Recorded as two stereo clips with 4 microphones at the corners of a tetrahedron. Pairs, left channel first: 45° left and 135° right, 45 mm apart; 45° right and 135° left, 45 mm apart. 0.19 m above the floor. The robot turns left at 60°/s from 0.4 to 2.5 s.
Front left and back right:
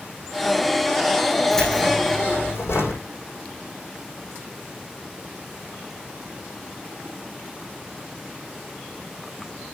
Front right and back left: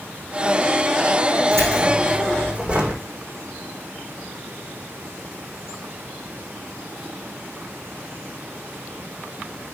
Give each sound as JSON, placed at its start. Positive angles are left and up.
{"t": 1.5, "sound": "keys jangling", "azimuth_deg": 130, "distance_m": 7.0}